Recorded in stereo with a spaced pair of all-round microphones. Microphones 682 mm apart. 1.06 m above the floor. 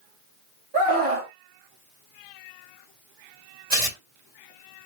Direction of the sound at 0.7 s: 50° right (ahead or behind).